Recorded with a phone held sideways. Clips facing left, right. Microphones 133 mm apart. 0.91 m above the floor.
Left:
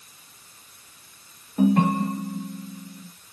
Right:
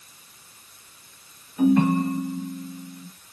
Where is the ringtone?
50° left (ahead or behind), 1.0 m.